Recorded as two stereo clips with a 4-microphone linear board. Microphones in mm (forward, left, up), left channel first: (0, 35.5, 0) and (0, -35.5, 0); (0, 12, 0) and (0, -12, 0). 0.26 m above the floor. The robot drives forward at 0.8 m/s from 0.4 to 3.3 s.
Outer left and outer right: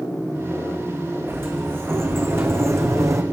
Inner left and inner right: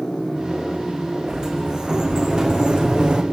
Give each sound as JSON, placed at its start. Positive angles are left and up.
{"t": 1.3, "sound": "a sliding door", "side_deg": -35, "distance_m": 5.5}